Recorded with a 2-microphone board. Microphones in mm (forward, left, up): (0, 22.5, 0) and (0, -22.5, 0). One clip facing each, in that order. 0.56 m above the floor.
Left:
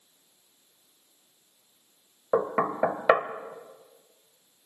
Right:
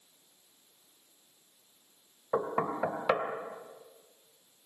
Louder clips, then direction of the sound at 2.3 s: Left 5 dB; 50° left (ahead or behind).